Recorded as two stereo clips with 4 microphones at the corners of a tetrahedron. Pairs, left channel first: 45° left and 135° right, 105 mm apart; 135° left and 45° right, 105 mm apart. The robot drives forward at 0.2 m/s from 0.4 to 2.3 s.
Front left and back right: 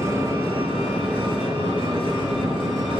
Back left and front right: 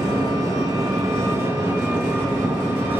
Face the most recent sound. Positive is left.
turn(degrees=-115)